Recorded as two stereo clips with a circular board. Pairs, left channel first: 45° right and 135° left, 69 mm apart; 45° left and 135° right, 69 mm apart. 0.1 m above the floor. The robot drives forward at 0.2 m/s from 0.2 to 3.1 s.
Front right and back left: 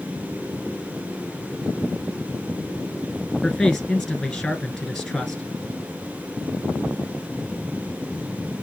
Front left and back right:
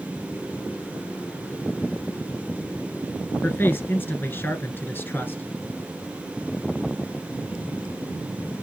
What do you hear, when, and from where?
3.4 s a man speaking: 40° left, 1.4 m